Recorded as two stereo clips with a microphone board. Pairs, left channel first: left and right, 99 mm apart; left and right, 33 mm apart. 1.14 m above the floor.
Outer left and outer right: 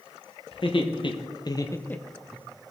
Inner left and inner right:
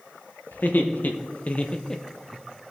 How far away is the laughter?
About 1.3 m.